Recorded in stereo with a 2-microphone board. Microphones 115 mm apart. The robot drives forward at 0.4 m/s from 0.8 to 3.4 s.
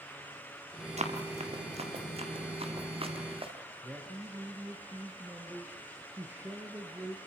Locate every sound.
1.0 s running footsteps: 65° right (ahead or behind), 4.5 m; by 3.5 s 50° right (ahead or behind), 5.5 m
3.8 s a man speaking: 15° right (ahead or behind), 3 m